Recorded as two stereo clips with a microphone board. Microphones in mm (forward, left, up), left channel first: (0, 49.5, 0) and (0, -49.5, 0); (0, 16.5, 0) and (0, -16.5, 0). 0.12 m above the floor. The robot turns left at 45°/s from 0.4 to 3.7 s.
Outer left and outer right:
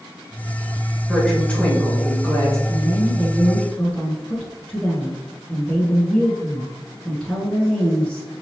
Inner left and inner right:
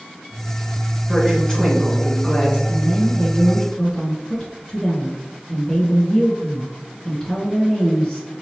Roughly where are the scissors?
No scissors in this recording.